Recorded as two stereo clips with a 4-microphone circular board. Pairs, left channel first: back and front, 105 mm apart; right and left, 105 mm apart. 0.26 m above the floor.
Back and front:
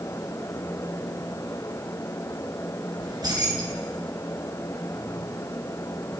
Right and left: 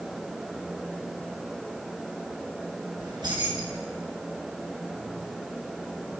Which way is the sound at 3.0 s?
45° left.